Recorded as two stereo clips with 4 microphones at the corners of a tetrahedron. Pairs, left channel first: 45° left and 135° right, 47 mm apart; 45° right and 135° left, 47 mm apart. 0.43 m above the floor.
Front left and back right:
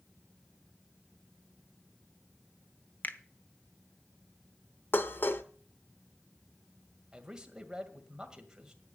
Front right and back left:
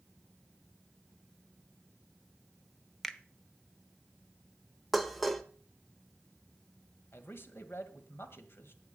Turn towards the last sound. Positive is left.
turn(degrees=-65)